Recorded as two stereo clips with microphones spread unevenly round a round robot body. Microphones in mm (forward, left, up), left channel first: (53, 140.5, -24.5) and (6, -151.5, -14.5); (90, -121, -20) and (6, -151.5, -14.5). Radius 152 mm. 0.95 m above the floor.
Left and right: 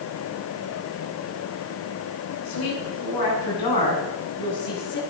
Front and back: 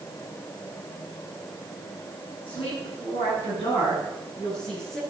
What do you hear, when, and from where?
2.5 s a woman speaking: 80° left, 9.5 m; by 5.0 s 95° left, 9 m